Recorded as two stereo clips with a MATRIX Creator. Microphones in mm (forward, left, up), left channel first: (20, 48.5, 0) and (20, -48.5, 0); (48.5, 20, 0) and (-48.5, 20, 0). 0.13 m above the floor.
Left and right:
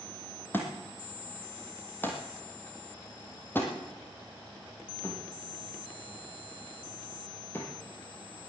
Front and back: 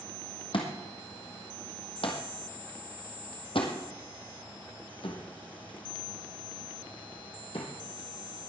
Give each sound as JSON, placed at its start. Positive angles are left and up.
{"t": 0.5, "sound": "a thud", "azimuth_deg": 20, "distance_m": 3.0}